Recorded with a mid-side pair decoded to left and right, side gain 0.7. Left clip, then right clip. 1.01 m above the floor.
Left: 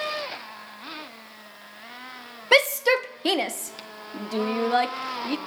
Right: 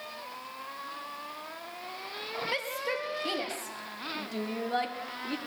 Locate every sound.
2.5 s a shout: 60° left, 1.2 m; by 5.4 s 35° left, 2.5 m